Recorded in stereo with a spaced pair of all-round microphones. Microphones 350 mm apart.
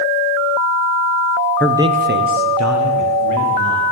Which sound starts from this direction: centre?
A man speaking, at 1.6 s.